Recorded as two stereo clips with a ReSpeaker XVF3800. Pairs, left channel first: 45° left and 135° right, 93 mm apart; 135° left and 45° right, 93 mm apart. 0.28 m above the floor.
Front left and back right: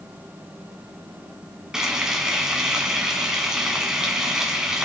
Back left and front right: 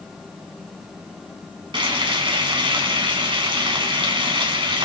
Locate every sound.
1.7 s frying: 50° right, 1.9 m